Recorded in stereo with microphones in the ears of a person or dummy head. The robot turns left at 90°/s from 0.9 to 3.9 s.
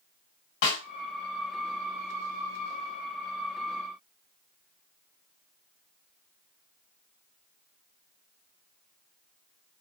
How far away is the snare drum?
About 1.6 m.